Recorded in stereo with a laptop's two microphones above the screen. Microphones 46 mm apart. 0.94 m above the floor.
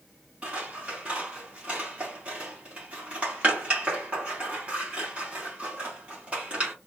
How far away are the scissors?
About 1.8 m.